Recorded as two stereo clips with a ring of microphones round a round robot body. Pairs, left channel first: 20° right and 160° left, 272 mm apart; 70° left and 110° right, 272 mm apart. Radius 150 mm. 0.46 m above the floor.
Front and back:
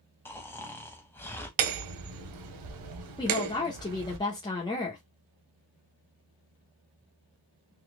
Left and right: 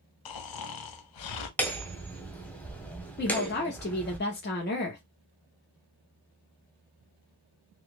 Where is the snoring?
60° left, 0.8 m.